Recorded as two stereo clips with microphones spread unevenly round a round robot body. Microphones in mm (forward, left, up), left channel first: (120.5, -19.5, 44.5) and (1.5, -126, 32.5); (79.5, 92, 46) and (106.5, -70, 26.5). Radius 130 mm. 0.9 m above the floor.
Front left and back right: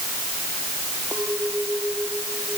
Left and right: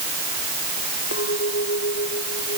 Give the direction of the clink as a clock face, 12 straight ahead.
7 o'clock.